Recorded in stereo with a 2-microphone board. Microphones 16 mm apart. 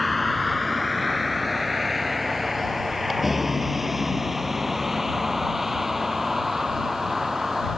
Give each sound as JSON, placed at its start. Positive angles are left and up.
{"t": 0.0, "sound": "a vehicle", "side_deg": 0}